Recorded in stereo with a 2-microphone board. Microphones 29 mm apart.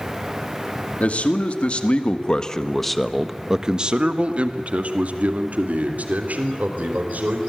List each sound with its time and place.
1.0 s a man speaking: 55° left (ahead or behind), 2.5 m; by 7.4 s 75° right (ahead or behind), 4.5 m